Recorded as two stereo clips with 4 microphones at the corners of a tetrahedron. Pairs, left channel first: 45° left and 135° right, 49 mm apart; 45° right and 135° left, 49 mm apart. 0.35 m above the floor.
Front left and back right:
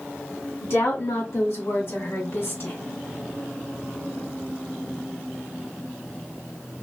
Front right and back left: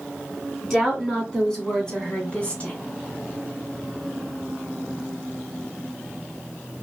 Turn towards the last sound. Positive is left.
turn(degrees=10)